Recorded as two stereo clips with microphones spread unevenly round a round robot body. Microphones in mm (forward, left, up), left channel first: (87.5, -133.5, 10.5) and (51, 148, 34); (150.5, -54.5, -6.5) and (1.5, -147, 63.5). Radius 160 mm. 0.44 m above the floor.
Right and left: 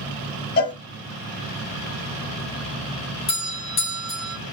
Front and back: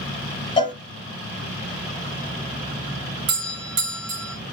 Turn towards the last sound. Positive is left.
turn(degrees=-145)